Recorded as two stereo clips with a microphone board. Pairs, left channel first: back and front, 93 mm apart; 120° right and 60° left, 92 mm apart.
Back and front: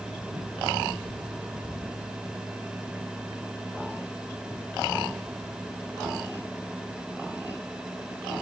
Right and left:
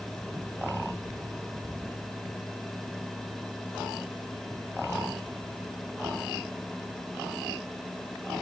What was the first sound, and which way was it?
Only background noise.